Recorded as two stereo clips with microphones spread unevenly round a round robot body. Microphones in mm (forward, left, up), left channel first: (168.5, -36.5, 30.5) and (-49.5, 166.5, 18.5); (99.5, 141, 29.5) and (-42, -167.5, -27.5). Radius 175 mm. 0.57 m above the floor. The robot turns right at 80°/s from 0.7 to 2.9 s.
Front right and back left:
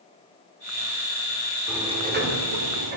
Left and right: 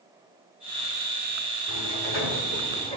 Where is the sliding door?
50° left, 2.5 m; by 3.0 s 145° left, 2.5 m.